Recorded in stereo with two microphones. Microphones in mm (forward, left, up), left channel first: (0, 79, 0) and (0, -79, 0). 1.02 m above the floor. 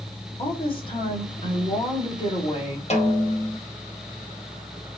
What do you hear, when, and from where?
0.4 s a woman speaking: 35° left (ahead or behind), 4.5 m
2.9 s a snare drum: 45° left (ahead or behind), 1.7 m